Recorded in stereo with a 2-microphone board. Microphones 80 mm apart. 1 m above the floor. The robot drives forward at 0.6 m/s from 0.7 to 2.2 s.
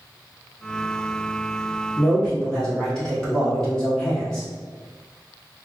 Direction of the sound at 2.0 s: 10° left (ahead or behind).